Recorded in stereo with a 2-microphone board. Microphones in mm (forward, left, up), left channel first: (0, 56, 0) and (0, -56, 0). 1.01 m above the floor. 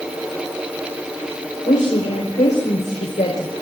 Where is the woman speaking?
85° left, 4.5 m; by 3.5 s 75° left (ahead or behind), 4 m.